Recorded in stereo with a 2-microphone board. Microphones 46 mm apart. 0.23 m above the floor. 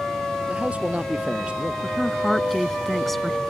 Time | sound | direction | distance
0.5 | a man speaking | 25° right (ahead or behind) | ?
1.8 | a woman speaking | 5° left (ahead or behind) | ?